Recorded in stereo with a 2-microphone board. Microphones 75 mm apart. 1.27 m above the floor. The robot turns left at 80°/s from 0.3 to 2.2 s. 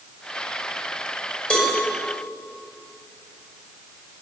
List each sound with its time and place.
1.5 s a cowbell: 10° left (ahead or behind), 8 m; by 1.8 s 10° right (ahead or behind), 8 m